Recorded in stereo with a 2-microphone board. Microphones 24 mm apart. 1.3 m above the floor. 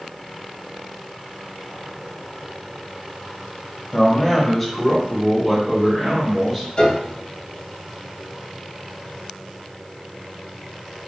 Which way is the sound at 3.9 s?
20° left (ahead or behind).